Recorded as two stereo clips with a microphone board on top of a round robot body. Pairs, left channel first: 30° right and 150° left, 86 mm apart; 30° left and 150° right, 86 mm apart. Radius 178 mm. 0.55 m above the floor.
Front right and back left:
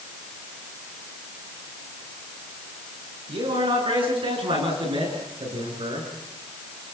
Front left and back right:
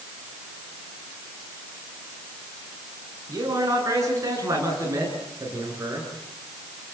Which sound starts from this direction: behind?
A man speaking, at 3.3 s.